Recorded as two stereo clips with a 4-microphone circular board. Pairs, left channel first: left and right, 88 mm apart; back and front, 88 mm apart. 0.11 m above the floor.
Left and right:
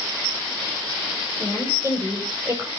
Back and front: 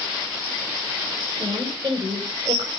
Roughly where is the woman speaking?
Ahead right.